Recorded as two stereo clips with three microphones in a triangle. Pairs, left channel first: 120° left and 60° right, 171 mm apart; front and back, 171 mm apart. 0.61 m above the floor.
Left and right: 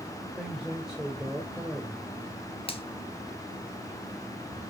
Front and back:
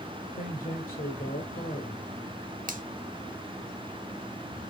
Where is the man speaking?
25° left, 2.5 m.